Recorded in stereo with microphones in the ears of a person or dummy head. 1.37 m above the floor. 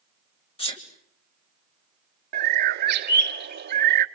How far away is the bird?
About 0.9 m.